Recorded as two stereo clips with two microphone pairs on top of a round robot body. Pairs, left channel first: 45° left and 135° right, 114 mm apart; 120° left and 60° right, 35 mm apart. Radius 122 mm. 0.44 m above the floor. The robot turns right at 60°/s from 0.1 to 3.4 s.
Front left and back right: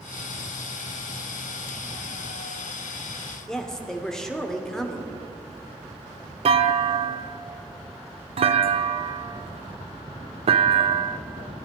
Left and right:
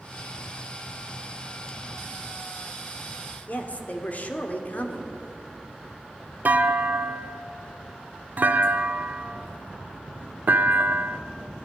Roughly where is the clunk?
Right.